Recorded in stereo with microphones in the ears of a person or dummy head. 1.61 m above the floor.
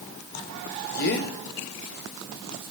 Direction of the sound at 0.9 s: 55° left (ahead or behind).